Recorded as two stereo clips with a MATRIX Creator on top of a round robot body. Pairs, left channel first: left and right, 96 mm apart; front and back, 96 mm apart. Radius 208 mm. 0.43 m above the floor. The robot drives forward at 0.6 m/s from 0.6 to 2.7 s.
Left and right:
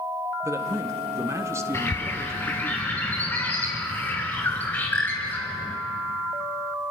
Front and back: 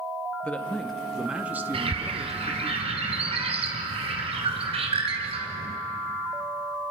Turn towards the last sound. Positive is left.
turn(degrees=165)